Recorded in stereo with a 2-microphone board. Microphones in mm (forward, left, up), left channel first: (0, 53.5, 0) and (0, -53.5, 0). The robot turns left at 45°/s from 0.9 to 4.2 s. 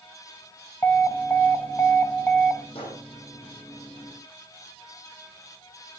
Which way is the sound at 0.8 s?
20° left (ahead or behind).